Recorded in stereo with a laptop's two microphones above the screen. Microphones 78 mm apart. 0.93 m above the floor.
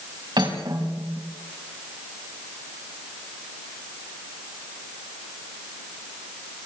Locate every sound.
0.4 s cutlery clinking: 70° right (ahead or behind), 4.5 m